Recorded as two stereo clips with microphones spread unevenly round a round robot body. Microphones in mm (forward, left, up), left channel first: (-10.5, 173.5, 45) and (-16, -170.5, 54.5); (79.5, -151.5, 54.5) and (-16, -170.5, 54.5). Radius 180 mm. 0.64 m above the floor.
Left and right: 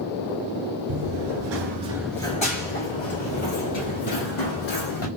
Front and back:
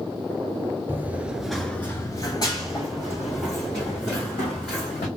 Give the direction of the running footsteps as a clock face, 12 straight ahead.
3 o'clock.